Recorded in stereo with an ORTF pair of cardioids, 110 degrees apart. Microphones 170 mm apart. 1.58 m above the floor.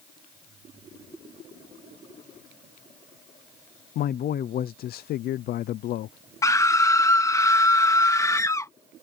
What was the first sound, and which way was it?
A man speaking, 65° left.